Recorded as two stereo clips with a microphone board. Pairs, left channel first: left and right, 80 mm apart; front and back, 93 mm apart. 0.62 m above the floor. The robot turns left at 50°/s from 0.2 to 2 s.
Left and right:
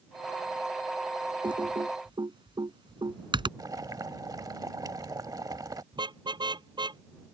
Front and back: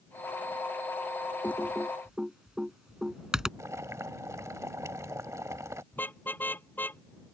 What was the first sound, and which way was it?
Typing on a keyboard, 70° right.